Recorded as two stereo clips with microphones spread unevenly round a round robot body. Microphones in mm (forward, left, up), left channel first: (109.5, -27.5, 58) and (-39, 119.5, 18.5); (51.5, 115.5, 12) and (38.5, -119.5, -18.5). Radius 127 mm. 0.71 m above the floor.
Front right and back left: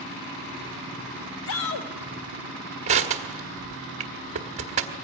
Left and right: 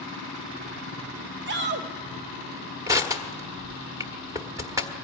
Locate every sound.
1.5 s a shout: 60° right, 1.1 m
2.9 s crushing: 170° right, 1.3 m